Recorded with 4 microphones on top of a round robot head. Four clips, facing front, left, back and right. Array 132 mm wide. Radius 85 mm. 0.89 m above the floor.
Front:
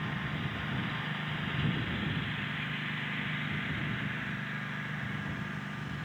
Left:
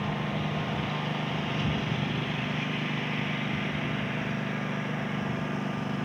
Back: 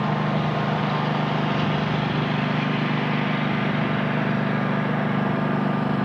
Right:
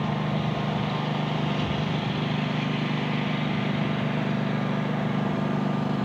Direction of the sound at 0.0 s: 170° right.